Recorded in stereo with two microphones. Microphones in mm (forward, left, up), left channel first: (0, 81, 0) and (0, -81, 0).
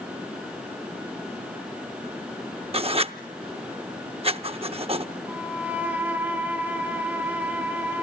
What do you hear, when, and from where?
2.7 s writing: 40° right (ahead or behind), 0.6 m
5.3 s a violin: 10° right (ahead or behind), 3.5 m